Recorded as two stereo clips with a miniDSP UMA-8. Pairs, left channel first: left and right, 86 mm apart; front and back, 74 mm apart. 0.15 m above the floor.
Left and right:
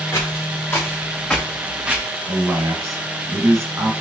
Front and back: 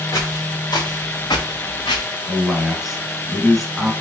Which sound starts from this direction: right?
A man speaking, at 2.3 s.